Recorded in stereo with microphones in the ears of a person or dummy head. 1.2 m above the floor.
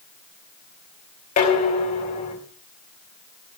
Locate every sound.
1.4 s dishes clattering: 35° left (ahead or behind), 4.5 m